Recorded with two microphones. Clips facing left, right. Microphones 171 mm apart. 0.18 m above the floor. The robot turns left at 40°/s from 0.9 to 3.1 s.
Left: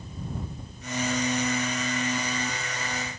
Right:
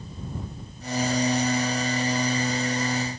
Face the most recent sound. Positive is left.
No sound to turn to.